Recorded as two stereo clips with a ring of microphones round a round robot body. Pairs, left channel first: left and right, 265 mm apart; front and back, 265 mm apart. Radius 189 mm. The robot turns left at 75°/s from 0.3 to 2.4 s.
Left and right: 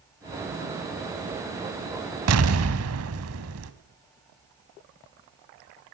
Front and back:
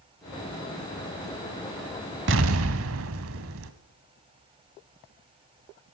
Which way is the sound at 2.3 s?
125° right.